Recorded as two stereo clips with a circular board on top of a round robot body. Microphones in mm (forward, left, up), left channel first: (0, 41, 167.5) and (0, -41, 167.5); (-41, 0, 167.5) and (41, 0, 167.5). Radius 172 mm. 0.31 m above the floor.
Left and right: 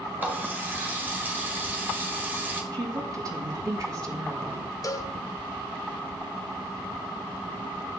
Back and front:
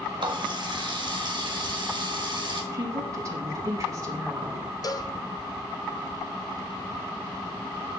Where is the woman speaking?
50° right, 5 m.